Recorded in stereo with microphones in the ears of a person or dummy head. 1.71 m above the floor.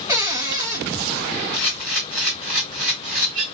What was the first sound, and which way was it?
A cupboard door, 15° right (ahead or behind).